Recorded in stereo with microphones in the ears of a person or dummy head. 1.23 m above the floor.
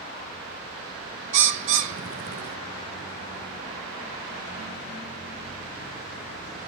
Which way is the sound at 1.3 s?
40° right (ahead or behind).